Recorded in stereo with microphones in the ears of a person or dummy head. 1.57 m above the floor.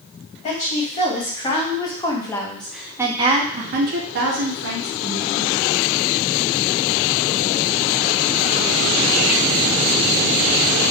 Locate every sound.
0.4 s a woman speaking: 35° left (ahead or behind), 1.9 m; by 5.5 s 75° right (ahead or behind), 1.5 m